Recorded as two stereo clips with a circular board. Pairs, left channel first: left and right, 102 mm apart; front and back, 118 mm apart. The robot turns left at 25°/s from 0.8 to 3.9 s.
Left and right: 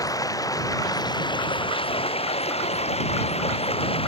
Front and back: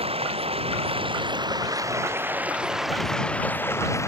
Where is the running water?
145° left; by 4.1 s 65° left.